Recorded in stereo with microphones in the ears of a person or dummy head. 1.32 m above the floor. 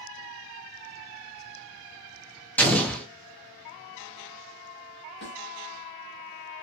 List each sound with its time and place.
2.6 s an explosion: 5° left (ahead or behind), 0.5 m
5.2 s a snare drum: 45° left (ahead or behind), 1.6 m